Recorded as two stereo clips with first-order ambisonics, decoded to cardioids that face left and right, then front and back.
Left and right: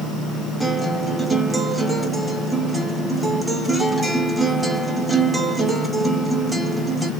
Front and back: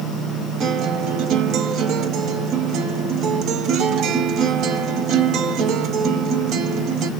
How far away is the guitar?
About 0.7 m.